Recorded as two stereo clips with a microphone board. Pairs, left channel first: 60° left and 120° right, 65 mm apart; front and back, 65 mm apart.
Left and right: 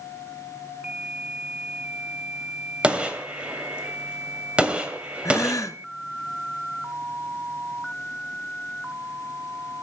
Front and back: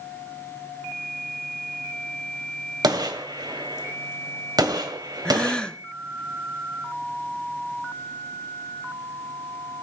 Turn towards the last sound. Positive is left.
turn(degrees=75)